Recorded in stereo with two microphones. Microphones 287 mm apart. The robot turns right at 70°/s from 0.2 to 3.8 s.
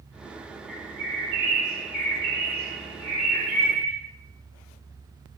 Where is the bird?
95° right, 1.3 m; by 3.9 s 125° left, 1.3 m.